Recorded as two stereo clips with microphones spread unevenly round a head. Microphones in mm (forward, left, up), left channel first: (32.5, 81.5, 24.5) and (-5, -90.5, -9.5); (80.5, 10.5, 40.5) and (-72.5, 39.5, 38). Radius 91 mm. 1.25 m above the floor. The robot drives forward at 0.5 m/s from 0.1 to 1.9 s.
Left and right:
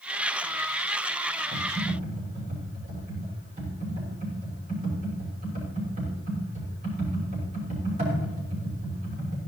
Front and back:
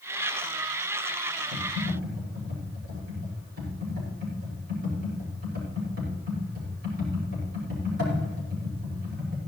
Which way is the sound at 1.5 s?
155° right.